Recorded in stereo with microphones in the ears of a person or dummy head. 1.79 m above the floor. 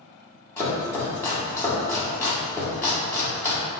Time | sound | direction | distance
0.6 | chopping | 20° left (ahead or behind) | 1.2 m